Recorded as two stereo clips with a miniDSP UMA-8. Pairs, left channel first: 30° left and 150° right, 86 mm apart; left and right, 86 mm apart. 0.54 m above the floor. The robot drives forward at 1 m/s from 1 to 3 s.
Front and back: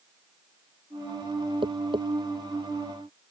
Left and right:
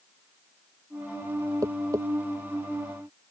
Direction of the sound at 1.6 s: 140° right.